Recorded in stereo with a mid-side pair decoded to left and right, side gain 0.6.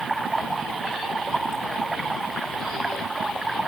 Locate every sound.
0.0 s running water: 15° right